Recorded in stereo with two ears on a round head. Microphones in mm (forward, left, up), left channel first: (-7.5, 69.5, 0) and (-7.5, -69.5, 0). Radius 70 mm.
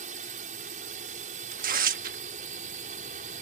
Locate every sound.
0.0 s a drone: 50° right (ahead or behind)
1.5 s tearing paper: 60° right (ahead or behind)